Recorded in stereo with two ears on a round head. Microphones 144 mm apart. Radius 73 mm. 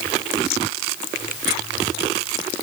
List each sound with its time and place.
Only background noise.